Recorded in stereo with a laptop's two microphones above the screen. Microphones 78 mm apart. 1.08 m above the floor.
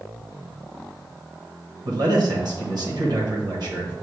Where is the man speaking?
55° right (ahead or behind), 1.3 m.